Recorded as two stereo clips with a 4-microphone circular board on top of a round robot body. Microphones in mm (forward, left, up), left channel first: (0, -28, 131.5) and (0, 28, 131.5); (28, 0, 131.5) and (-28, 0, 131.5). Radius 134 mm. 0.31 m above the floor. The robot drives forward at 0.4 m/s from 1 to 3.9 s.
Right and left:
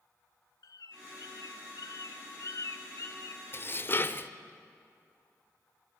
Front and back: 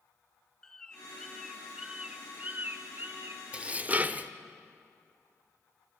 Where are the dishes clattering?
120° right, 1.1 m; by 4.3 s 130° right, 1.1 m.